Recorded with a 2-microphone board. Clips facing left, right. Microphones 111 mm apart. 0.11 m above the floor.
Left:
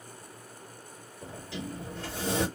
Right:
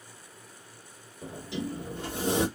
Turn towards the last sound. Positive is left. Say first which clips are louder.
# right 4 dB
turn(degrees=-20)  # may be behind; listen again after turning